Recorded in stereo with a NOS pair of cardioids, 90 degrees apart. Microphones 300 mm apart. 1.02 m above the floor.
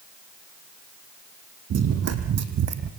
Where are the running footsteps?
60° right, 3 m.